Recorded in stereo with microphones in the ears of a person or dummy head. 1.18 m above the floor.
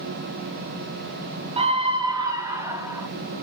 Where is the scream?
35° right (ahead or behind), 0.7 m; by 3.1 s 20° right (ahead or behind), 2.0 m.